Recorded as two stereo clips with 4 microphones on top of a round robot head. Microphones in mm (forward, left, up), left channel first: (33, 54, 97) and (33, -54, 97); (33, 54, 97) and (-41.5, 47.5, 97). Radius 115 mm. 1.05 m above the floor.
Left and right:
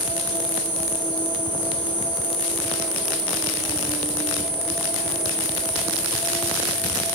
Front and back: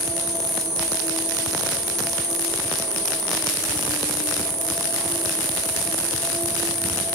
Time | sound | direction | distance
0.0 | an insect | 15° right | 5.5 m